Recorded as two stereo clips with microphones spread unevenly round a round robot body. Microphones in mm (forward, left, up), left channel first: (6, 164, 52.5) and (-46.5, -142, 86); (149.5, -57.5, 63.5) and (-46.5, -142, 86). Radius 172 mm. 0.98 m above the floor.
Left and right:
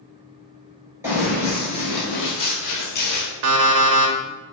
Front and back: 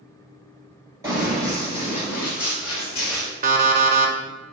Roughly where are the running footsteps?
Behind right.